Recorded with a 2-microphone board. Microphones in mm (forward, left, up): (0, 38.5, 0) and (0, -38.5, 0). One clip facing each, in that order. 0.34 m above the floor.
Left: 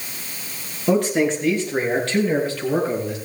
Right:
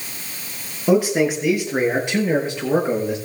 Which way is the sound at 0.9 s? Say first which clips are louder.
Right 2 dB; 5° right (ahead or behind).